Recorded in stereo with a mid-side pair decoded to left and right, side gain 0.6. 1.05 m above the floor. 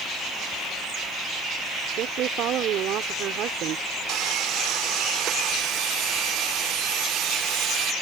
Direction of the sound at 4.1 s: 65° right.